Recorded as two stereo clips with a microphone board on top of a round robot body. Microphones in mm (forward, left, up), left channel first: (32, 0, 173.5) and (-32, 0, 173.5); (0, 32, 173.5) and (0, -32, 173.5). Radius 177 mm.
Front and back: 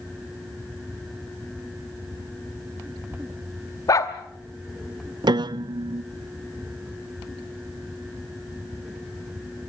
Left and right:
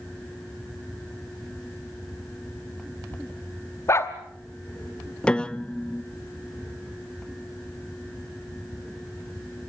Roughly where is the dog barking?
Ahead left.